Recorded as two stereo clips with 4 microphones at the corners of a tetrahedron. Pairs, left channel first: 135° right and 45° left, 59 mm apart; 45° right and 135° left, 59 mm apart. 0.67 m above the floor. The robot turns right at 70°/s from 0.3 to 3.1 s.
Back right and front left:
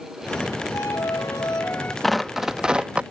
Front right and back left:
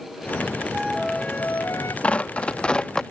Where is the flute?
155° right; by 1.9 s 70° right.